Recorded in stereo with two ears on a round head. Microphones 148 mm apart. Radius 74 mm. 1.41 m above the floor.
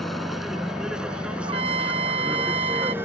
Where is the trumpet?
35° right (ahead or behind).